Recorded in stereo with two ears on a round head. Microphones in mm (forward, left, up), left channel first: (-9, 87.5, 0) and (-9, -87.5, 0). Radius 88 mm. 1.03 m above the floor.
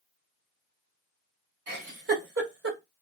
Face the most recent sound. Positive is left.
turn(degrees=-60)  # may be behind; listen again after turning